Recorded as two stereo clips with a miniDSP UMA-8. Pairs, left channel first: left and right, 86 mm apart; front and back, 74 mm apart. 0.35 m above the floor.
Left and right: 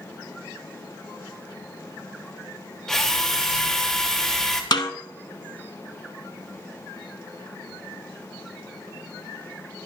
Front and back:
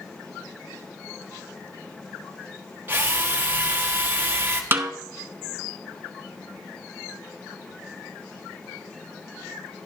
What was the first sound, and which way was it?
A drill, 165° left.